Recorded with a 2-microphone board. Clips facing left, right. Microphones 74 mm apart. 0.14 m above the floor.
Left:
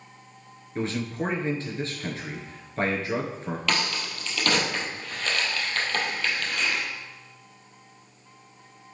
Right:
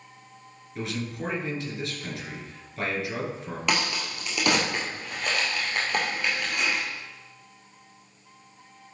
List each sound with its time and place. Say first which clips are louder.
0.8 s a man speaking: left 4 dB; 35° left (ahead or behind), 2 m
3.7 s a crack: right 2 dB; 15° right (ahead or behind), 2 m